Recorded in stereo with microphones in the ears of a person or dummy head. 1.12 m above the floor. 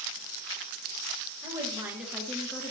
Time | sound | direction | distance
1.4 | a woman speaking | 15° right (ahead or behind) | 1.0 m